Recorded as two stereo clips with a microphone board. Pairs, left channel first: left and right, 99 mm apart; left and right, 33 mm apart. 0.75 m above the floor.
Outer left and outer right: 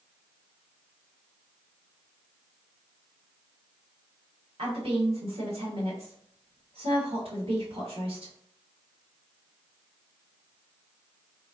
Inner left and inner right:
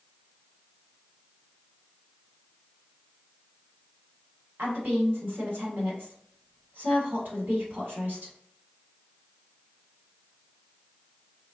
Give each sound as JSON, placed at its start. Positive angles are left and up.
{"t": 4.6, "sound": "a woman speaking", "side_deg": -75, "distance_m": 1.6}